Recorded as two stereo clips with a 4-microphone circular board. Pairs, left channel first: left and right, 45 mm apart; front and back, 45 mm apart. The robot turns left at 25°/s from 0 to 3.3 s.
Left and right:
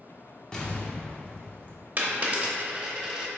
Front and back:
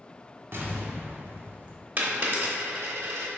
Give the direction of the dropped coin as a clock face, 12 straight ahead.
4 o'clock.